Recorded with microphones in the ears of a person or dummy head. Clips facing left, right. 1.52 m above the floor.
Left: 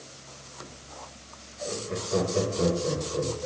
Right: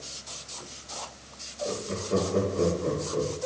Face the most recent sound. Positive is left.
turn(degrees=-50)  # may be behind; listen again after turning